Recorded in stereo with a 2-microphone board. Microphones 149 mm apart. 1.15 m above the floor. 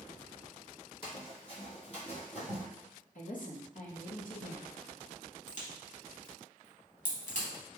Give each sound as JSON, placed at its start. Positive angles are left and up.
{"t": 1.0, "sound": "running footsteps", "side_deg": 35, "distance_m": 1.7}
{"t": 3.1, "sound": "a woman speaking", "side_deg": 60, "distance_m": 0.9}
{"t": 5.5, "sound": "a crack", "side_deg": 55, "distance_m": 1.1}